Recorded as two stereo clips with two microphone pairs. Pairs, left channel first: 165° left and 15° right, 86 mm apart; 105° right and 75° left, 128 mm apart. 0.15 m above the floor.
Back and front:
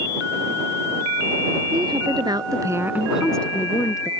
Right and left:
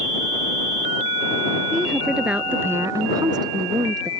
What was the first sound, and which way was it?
A woman speaking, 15° right.